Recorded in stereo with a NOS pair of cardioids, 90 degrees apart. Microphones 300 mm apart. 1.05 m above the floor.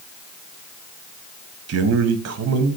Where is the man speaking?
55° right, 0.9 m.